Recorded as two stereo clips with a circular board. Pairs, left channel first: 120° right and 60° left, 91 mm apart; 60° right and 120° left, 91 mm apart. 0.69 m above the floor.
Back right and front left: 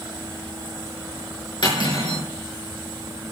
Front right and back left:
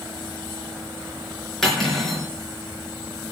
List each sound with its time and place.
1.6 s cutlery clinking: 145° right, 5.5 m